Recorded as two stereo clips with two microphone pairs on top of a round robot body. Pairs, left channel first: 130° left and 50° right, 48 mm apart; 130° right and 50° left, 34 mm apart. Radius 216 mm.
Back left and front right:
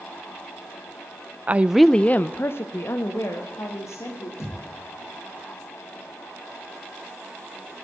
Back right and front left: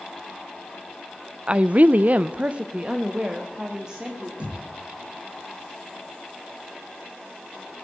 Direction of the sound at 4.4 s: 105° left.